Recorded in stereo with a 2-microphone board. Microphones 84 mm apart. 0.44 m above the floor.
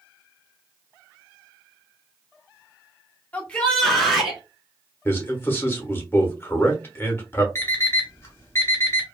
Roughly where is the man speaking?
Left.